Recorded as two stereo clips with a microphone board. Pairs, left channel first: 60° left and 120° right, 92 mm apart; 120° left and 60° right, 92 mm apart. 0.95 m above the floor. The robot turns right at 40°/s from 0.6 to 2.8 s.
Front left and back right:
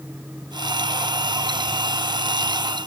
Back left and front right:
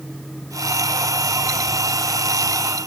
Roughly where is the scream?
No scream in this recording.